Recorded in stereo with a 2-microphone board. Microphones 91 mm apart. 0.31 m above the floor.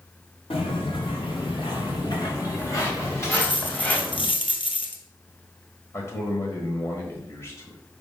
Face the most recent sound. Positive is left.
turn(degrees=30)  # may be behind; listen again after turning